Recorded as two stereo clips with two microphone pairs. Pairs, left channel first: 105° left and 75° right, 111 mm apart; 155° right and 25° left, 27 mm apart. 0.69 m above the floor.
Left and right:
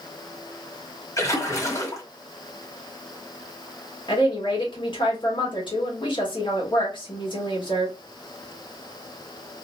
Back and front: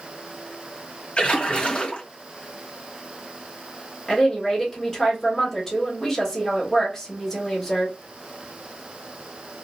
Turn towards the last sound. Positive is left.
turn(degrees=130)